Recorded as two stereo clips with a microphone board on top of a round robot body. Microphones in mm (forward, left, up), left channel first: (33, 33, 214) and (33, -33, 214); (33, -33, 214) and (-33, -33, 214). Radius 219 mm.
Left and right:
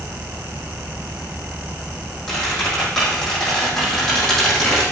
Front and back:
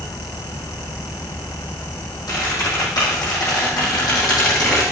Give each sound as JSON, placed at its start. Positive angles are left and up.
{"t": 2.3, "sound": "a squeak", "azimuth_deg": 5, "distance_m": 7.0}